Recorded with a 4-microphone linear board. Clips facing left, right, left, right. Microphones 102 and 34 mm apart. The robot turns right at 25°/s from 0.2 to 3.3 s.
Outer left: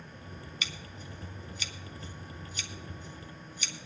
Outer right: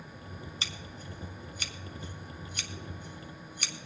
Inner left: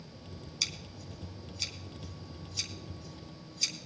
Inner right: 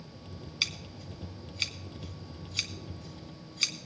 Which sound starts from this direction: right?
Scissors, at 0.6 s.